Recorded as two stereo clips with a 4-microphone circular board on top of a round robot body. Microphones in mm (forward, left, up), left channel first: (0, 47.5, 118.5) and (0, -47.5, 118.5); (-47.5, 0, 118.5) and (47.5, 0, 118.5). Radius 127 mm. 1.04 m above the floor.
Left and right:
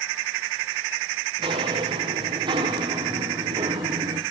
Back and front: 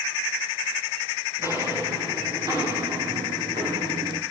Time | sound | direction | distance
1.4 | footsteps | 60° right | 6.5 m